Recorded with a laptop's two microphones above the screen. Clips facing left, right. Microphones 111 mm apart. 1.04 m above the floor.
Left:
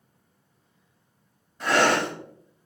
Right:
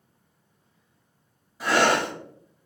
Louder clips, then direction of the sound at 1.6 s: Even; 5° right (ahead or behind).